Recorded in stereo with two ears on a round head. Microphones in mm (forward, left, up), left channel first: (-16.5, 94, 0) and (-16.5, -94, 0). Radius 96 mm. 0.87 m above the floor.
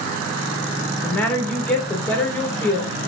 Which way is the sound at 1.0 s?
10° left (ahead or behind).